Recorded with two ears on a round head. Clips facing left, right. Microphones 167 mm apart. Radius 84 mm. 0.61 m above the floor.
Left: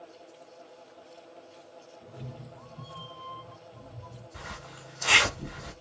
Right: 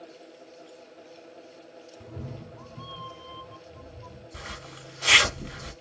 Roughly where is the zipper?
Right.